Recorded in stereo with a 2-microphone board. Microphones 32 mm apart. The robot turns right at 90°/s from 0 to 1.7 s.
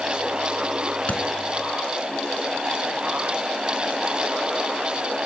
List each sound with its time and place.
1.1 s a thud: 55° left (ahead or behind), 0.6 m; by 1.2 s 60° left (ahead or behind), 0.6 m